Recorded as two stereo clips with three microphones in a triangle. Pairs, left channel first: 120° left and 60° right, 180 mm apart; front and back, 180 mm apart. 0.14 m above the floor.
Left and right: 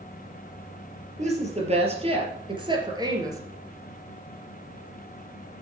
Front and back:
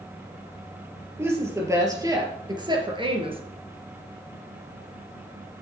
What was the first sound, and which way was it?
A woman speaking, 105° right.